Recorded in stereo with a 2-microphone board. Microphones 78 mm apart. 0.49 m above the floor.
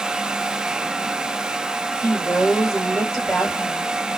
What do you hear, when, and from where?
2.0 s a woman speaking: 10° left (ahead or behind), 2 m